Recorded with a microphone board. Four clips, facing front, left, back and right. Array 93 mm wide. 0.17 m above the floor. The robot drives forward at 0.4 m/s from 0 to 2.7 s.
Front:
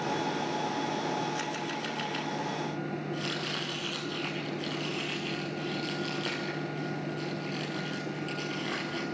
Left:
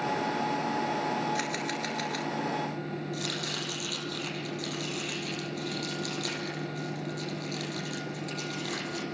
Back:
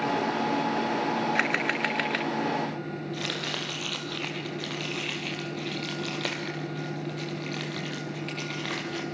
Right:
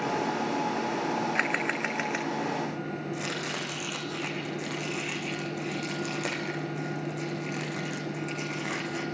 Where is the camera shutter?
140° right, 0.6 m; by 2.3 s 155° right, 1.0 m.